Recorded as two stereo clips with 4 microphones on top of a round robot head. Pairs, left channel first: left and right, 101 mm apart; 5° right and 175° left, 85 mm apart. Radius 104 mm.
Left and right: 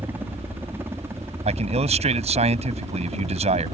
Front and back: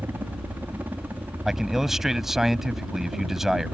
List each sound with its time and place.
0.0 s a helicopter: 140° right; by 3.7 s 125° right
1.4 s a man speaking: 95° right